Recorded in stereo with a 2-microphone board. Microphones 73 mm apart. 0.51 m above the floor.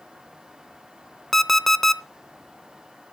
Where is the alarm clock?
5° left (ahead or behind), 0.6 m.